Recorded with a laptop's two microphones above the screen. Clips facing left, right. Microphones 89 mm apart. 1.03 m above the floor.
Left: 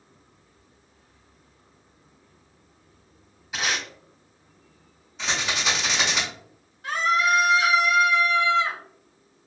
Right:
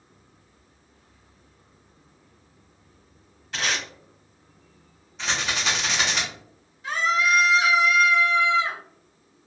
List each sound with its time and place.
3.5 s tape being pulled: 5° left (ahead or behind), 1.2 m
5.2 s a rattle: centre (ahead or behind), 1.2 m
6.8 s a scream: 50° left (ahead or behind), 1.2 m